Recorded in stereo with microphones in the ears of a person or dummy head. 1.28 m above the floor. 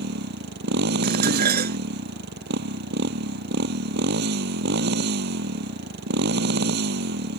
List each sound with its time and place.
0.0 s a motorcycle: 65° right (ahead or behind)
1.0 s dishes clattering: 50° right (ahead or behind)